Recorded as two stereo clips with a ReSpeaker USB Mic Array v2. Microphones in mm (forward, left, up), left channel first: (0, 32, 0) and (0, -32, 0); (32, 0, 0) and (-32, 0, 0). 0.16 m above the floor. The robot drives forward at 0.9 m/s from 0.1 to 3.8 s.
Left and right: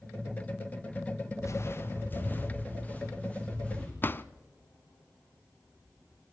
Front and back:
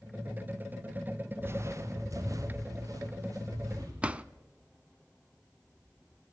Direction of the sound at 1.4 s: 125° left.